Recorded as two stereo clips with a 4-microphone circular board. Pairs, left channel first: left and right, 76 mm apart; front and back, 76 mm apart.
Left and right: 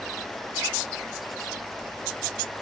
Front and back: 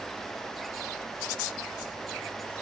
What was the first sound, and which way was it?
Only background noise.